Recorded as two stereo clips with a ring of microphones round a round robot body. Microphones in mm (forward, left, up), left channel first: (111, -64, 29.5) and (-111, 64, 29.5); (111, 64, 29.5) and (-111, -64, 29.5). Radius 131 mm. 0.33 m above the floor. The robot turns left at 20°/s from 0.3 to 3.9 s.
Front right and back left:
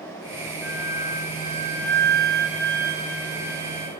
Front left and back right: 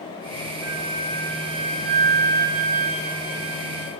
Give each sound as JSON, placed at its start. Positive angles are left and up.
{"t": 0.6, "sound": "a flute", "azimuth_deg": -125, "distance_m": 7.5}